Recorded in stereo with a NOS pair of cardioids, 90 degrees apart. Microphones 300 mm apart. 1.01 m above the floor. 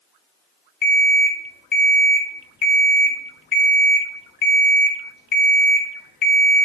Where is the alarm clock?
35° left, 0.7 m.